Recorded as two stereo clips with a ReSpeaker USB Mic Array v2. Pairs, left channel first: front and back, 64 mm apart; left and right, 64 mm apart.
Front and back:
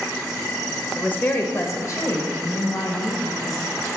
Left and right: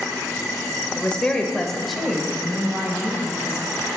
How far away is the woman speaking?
About 0.9 m.